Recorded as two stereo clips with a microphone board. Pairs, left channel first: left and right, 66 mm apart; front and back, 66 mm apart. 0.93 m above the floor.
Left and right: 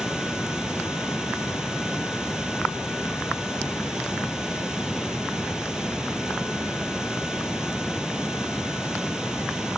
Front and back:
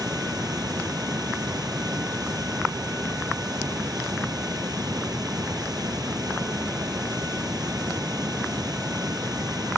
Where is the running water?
170° right.